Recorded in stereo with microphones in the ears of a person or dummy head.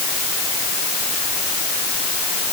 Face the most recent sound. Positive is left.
No sound to turn to.